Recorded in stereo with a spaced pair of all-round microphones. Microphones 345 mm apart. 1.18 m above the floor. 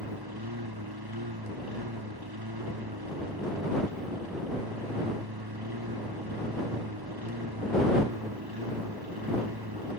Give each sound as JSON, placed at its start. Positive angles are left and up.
{"t": 0.0, "sound": "a lawn mower", "side_deg": -90}